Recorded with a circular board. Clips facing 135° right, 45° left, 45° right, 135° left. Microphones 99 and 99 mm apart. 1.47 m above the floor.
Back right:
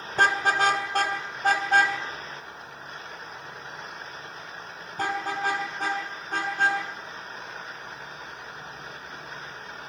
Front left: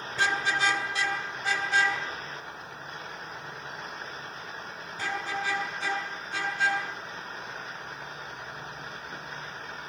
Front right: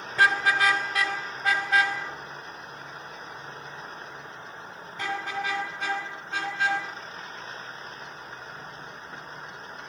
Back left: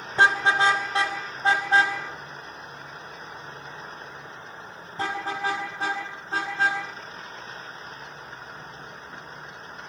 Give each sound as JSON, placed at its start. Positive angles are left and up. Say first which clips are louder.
{"t": 0.1, "sound": "a car horn", "louder": "back right 5 dB, back left 2 dB", "azimuth_deg": -165, "distance_m": 3.0}